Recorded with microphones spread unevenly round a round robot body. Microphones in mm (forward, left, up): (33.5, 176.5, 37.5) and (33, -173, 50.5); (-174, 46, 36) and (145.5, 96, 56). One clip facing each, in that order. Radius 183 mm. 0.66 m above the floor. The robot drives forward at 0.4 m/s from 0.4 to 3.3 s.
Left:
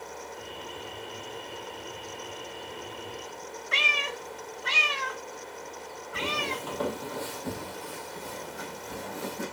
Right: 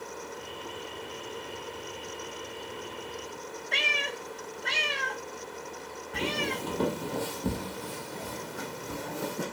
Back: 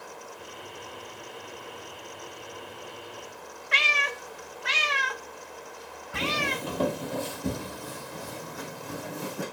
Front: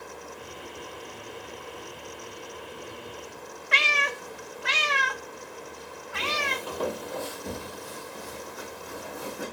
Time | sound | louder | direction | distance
3.7 | a cat meowing | even, front 2 dB | 10° left | 0.5 m
6.1 | footsteps | right 2 dB, back 3 dB | 155° right | 1.1 m